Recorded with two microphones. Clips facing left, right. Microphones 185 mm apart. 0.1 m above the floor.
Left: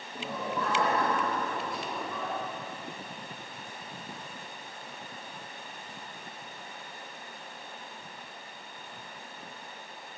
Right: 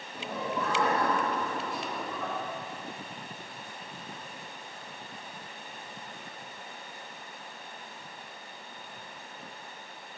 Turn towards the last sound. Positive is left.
turn(degrees=-60)  # may be behind; listen again after turning